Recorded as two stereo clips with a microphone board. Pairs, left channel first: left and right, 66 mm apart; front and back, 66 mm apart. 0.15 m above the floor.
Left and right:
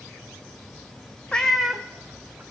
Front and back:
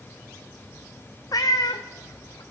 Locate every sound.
1.3 s a cat meowing: 15° left, 0.6 m; by 2.4 s 20° right, 1.4 m